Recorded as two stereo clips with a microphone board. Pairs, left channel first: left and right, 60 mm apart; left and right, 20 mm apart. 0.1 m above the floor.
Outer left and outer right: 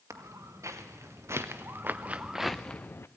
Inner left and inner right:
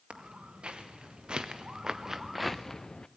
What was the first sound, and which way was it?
Footsteps, 60° right (ahead or behind).